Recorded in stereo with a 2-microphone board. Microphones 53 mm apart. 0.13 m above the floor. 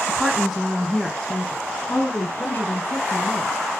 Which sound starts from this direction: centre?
A woman speaking, at 0.1 s.